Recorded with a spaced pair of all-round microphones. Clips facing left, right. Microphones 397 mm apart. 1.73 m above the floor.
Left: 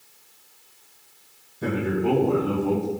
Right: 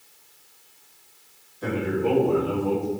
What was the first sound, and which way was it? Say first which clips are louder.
A man speaking: left 1 dB; 55° left (ahead or behind).